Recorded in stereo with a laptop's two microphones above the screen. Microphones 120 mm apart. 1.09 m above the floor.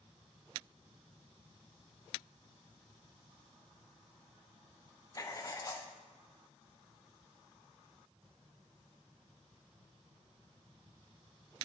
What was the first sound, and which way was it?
Writing, 30° left (ahead or behind).